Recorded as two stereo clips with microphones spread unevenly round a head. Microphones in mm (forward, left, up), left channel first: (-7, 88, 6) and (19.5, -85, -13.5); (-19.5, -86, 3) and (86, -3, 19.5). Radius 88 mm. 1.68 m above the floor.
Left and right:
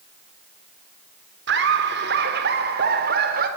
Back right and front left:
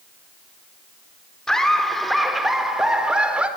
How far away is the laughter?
About 4 m.